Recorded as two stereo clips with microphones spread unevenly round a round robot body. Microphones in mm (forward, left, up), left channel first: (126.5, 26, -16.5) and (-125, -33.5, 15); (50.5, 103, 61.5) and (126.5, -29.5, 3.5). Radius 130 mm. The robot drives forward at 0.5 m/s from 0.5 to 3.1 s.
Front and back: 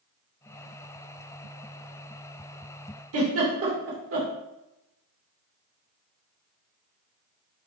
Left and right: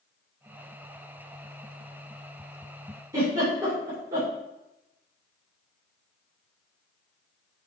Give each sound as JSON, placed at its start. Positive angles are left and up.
{"t": 3.1, "sound": "a giggle", "azimuth_deg": -130, "distance_m": 3.0}